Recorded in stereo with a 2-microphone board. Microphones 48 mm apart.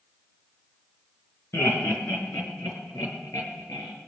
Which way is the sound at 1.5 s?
65° left (ahead or behind).